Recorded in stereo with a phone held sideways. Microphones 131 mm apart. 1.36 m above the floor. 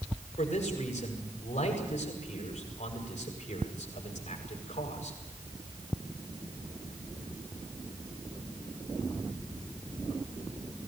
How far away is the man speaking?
About 8 m.